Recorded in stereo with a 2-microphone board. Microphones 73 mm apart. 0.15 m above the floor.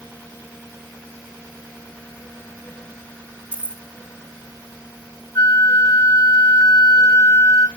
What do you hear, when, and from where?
3.5 s keys jangling: 15° right (ahead or behind), 3 m
5.3 s a flute: 50° left (ahead or behind), 1.0 m